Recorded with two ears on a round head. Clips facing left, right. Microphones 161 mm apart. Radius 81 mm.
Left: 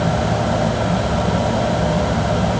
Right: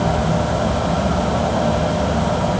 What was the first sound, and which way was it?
Only background noise.